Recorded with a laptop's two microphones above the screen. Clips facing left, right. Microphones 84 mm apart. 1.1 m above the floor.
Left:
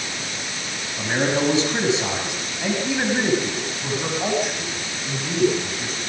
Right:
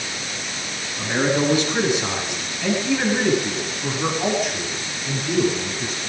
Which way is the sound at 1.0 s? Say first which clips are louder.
Right 1 dB; 30° left (ahead or behind).